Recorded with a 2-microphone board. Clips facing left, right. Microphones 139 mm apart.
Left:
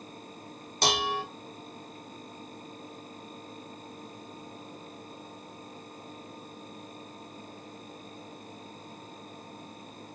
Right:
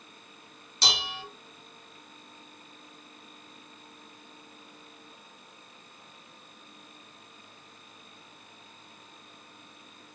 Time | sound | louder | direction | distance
0.8 | dishes clattering | left 7 dB | 55° left (ahead or behind) | 0.6 m